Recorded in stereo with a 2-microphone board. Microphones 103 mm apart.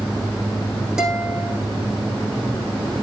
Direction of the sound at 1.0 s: 5° right (ahead or behind).